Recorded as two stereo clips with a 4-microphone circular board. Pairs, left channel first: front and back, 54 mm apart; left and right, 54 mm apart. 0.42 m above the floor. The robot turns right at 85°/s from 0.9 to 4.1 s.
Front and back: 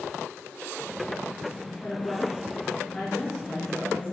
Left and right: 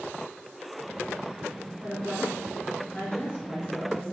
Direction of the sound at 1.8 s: 60° right.